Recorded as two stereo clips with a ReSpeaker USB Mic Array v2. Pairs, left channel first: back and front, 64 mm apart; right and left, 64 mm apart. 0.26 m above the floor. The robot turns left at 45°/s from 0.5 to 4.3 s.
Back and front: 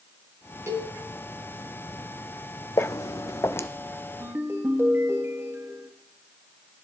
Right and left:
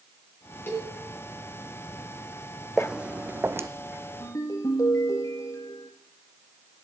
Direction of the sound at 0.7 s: 40° right.